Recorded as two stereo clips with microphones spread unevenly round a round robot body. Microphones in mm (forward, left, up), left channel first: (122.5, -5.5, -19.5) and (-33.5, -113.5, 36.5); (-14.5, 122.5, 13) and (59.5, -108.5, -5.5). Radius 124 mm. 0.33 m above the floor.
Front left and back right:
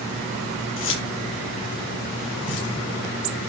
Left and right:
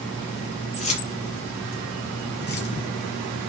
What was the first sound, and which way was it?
Keys jangling, 45° left.